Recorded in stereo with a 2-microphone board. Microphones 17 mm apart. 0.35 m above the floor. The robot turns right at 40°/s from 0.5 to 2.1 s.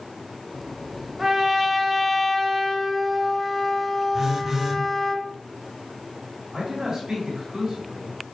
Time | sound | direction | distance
1.2 | a trumpet | 25° right | 0.6 m
4.1 | a phone buzzing | 25° right (ahead or behind) | 0.7 m
6.5 | a man speaking | 40° right (ahead or behind) | 1.8 m